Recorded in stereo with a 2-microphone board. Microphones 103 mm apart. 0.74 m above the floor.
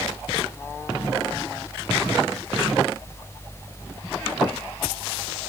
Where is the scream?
No scream in this recording.